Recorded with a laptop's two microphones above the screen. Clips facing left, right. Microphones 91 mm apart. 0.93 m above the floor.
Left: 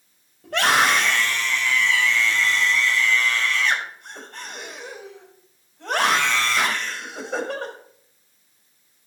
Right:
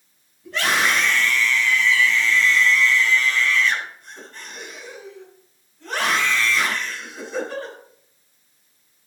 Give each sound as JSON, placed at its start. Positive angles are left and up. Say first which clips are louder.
{"t": 0.4, "sound": "a scream", "louder": "left 2 dB", "side_deg": 70, "distance_m": 5.0}